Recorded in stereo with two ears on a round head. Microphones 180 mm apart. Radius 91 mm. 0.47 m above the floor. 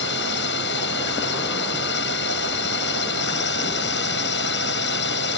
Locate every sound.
0.0 s a drone: 60° left (ahead or behind)